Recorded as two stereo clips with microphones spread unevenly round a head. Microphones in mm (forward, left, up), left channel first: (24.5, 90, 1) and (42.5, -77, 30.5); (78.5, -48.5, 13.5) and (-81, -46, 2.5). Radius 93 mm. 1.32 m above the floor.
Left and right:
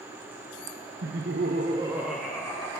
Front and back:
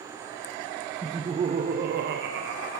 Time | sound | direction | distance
1.0 | laughter | 105° right | 0.7 m